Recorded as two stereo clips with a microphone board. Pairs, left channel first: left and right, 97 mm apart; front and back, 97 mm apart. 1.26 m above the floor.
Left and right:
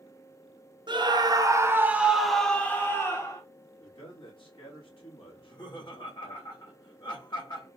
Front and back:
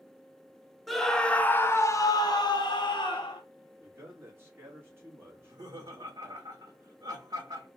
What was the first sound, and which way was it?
A scream, 90° right.